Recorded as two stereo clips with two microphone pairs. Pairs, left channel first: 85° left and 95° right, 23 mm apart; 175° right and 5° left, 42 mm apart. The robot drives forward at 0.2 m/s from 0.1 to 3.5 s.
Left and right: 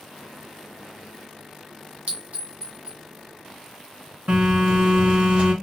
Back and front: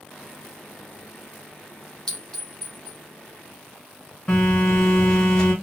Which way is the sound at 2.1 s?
100° right.